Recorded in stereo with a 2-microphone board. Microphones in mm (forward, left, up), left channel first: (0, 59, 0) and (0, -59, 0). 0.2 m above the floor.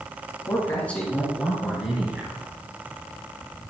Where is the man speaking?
20° left (ahead or behind), 2.5 m; by 2.5 s 20° right (ahead or behind), 2.5 m.